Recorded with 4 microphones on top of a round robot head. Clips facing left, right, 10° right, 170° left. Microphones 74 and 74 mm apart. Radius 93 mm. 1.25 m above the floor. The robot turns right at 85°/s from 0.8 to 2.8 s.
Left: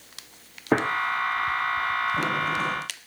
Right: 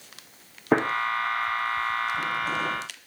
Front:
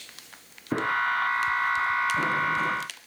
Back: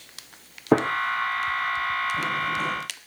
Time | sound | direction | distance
0.7 | a gunshot | 175° right | 0.9 m